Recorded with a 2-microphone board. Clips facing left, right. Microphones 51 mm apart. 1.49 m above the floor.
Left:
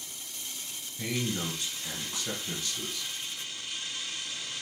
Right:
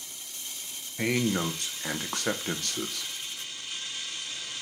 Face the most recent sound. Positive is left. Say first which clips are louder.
# right 6 dB
turn(degrees=-55)  # may be behind; listen again after turning